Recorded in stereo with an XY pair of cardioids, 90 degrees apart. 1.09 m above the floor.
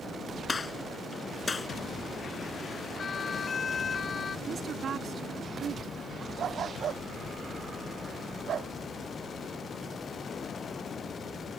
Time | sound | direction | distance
0.5 | a gunshot | 35° left | ?
3.0 | a siren | 45° left | ?
4.5 | a woman speaking | 55° right | ?
6.4 | a dog barking | 65° right | ?